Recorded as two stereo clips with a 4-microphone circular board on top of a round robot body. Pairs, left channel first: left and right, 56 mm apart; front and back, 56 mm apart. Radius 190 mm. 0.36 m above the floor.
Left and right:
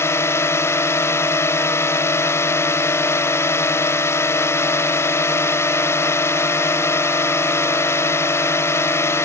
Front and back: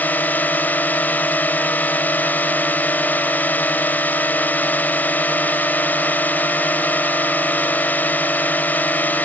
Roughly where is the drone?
Ahead left.